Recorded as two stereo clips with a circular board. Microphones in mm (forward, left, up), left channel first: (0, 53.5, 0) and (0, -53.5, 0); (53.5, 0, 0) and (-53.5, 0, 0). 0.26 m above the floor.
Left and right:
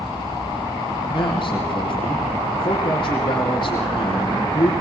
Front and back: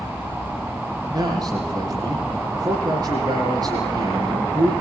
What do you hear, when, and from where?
1.1 s a man speaking: 130° left, 8 m